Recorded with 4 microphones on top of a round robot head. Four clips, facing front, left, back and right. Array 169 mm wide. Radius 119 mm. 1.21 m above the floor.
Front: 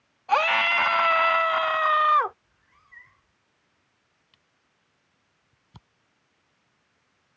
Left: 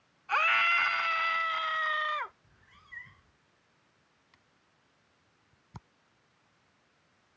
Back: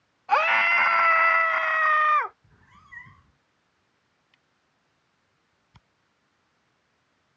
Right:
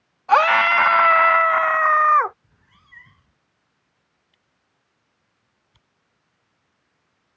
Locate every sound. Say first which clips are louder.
0.3 s a scream: right 13 dB, back 1 dB; 90° right; by 2.3 s 65° right
2.4 s a cat meowing: right 1 dB, back 6 dB; 160° right
4.3 s a camera shutter: left 1 dB, even; 65° left